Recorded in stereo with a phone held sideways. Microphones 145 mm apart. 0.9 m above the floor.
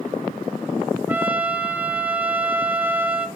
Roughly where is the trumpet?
Centre.